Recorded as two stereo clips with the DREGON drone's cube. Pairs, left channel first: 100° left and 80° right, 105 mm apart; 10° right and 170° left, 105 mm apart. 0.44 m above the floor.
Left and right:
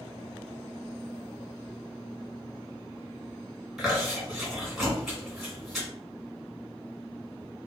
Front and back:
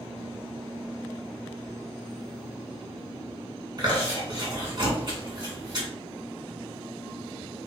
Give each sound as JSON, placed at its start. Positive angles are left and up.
{"t": 3.8, "sound": "chewing", "azimuth_deg": -170, "distance_m": 2.0}